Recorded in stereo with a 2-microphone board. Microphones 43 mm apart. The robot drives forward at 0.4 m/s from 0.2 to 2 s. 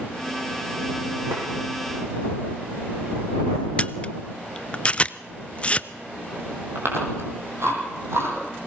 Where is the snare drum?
55° right (ahead or behind), 8 m.